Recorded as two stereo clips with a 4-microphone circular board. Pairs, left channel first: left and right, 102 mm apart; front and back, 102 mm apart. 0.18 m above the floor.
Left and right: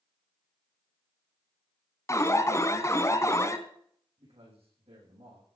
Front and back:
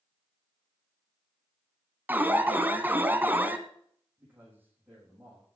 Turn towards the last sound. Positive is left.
turn(degrees=-110)